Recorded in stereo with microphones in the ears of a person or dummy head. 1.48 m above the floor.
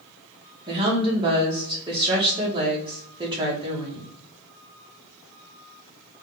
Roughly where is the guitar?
No guitar in this recording.